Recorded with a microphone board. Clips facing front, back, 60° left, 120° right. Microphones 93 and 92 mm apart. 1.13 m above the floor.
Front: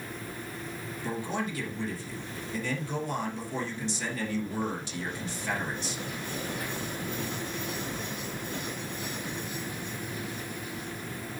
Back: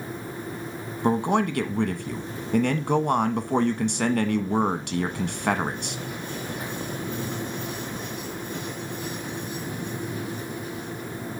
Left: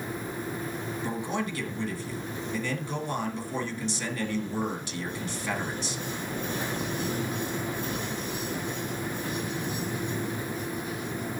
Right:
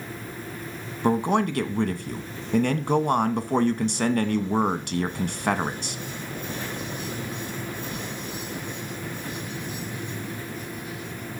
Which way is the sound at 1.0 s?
150° right.